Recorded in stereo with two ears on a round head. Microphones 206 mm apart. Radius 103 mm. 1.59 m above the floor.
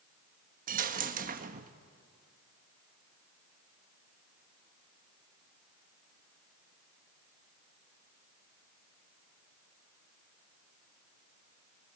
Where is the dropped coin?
35° right (ahead or behind), 1.1 m.